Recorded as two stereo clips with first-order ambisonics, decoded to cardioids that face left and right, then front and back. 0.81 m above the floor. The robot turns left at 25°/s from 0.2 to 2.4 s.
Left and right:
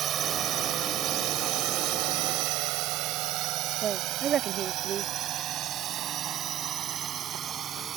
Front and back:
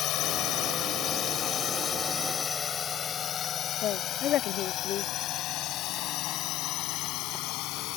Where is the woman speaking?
40° right.